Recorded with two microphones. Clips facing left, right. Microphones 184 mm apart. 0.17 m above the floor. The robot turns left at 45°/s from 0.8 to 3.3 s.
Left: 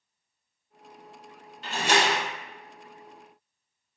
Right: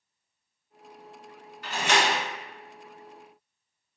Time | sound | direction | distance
1.6 | a door slam | 25° left (ahead or behind) | 1.0 m